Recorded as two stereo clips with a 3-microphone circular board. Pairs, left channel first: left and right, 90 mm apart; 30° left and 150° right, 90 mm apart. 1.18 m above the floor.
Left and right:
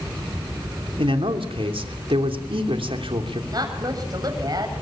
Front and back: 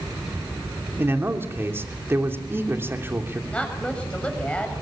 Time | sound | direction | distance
1.0 | a man speaking | 85° right | 3 m
3.5 | a woman speaking | 45° right | 7 m